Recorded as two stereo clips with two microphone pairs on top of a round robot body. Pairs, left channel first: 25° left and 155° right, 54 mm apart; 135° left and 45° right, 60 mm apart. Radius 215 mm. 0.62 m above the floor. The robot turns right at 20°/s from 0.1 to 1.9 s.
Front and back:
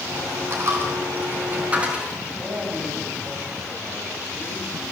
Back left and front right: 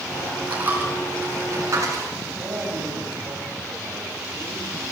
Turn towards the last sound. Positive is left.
turn(degrees=-95)